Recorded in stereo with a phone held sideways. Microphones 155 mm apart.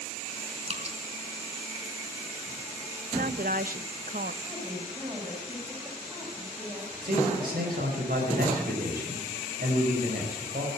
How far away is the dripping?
About 1.9 m.